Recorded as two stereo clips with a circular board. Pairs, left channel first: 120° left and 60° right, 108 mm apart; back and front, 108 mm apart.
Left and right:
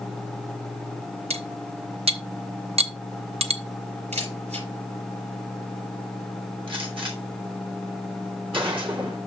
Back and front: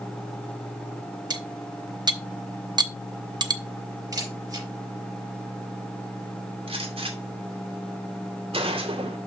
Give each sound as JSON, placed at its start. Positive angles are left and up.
{"t": 1.3, "sound": "cutlery clinking", "azimuth_deg": -45, "distance_m": 0.7}
{"t": 4.1, "sound": "a camera shutter", "azimuth_deg": -60, "distance_m": 5.0}
{"t": 6.7, "sound": "a gunshot", "azimuth_deg": -25, "distance_m": 2.5}